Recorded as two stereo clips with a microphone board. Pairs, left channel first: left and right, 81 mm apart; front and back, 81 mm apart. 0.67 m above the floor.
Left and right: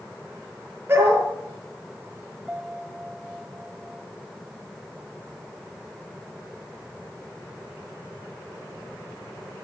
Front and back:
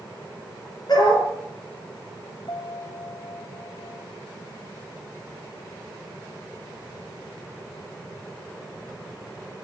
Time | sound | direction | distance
0.9 | a dog barking | 30° right | 7 m
2.5 | a piano | 15° right | 2.5 m